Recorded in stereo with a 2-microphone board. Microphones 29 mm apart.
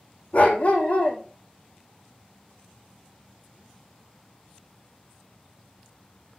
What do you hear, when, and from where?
0.3 s a dog barking: 50° left (ahead or behind), 2.5 m